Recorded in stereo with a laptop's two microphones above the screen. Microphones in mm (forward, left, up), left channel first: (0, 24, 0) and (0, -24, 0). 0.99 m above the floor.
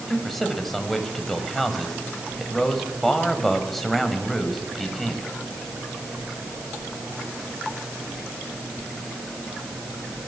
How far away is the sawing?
I don't hear sawing.